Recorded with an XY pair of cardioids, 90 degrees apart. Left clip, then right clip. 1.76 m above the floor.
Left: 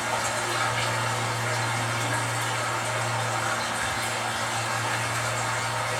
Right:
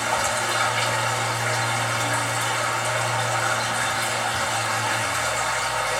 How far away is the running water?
About 3.5 m.